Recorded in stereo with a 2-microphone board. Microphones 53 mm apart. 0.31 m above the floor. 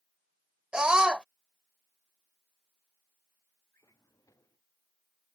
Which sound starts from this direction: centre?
A scream, at 0.7 s.